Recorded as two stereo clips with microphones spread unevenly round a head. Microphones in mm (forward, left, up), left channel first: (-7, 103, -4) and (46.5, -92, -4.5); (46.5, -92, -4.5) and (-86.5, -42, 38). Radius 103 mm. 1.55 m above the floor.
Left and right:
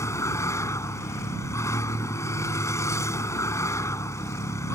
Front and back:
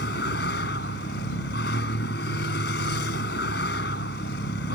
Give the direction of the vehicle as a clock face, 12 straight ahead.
11 o'clock.